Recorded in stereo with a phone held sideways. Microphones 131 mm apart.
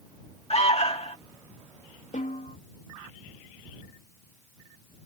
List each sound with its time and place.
0.5 s an alarm: 50° left (ahead or behind)
2.1 s a snare drum: 75° left (ahead or behind)